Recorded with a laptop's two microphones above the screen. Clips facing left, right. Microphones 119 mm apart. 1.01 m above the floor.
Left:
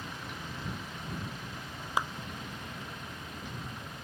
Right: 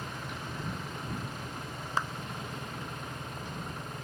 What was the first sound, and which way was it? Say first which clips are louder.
An engine running: right 2 dB; 45° right (ahead or behind).